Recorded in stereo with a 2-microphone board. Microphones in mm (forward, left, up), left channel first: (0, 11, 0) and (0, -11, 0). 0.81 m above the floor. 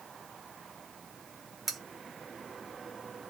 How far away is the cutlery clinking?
About 0.8 m.